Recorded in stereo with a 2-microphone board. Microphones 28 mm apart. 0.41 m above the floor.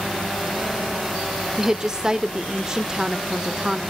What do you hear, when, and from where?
1.6 s a woman speaking: 20° right (ahead or behind), 0.8 m